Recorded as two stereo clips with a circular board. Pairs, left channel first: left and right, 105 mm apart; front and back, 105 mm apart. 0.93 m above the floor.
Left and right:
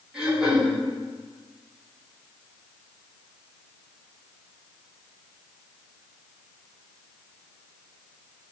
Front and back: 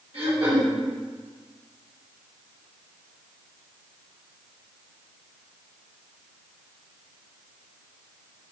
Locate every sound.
0.1 s throat clearing: 170° right, 1.6 m